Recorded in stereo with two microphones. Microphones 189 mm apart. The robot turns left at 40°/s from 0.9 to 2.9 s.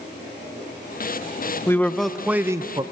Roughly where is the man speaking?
Ahead.